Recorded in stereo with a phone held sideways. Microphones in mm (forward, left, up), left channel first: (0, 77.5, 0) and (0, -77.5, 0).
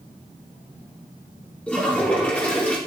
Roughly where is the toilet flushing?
Centre.